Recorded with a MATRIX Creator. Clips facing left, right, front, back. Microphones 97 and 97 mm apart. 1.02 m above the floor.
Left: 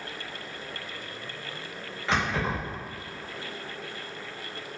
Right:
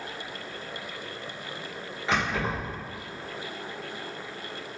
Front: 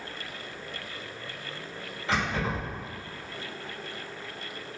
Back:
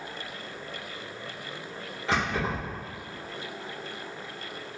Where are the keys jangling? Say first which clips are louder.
Even, back 1 dB; 170° right, 1.7 m.